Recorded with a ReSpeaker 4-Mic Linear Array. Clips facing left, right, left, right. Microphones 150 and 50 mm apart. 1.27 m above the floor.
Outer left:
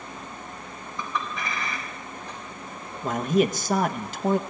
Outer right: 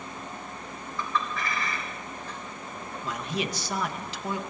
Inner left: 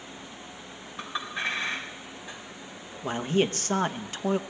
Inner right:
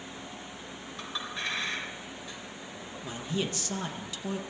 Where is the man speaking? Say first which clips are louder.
Outer left 10 dB, inner left 8 dB; 50° left (ahead or behind), 0.9 m.